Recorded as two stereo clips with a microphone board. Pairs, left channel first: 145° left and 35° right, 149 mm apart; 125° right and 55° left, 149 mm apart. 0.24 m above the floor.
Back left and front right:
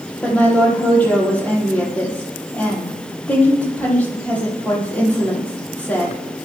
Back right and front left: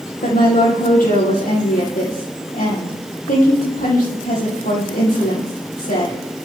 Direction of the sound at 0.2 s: 135° right.